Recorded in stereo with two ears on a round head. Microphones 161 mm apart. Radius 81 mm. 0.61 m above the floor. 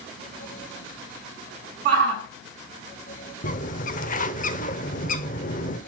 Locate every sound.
1.9 s a shout: 50° right (ahead or behind), 6 m
3.4 s a bird: 45° left (ahead or behind), 0.9 m